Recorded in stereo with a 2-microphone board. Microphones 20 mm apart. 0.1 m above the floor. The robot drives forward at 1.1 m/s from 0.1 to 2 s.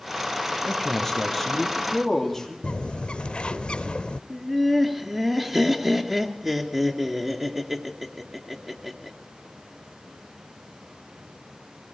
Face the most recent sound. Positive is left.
turn(degrees=-15)  # may be behind; listen again after turning